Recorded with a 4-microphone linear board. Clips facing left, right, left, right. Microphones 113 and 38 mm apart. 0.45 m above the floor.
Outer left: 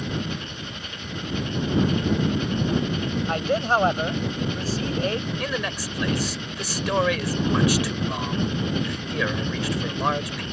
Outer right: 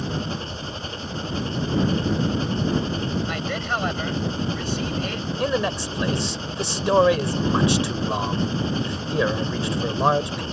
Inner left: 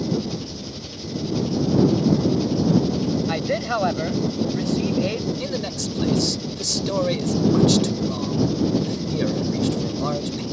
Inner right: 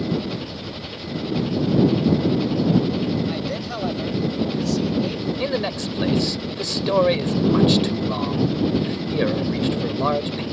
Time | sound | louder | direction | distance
0.0 | an engine running | outer right 1 dB, even | 30° right (ahead or behind) | ?
3.3 | a man speaking | outer left 5 dB, inner left 4 dB | 40° left (ahead or behind) | ?
5.4 | a man speaking | outer right 5 dB, inner right 4 dB | 30° right (ahead or behind) | ?